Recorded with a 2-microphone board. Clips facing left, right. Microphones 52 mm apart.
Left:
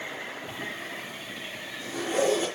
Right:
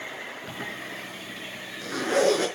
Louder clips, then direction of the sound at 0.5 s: Even; 80° right.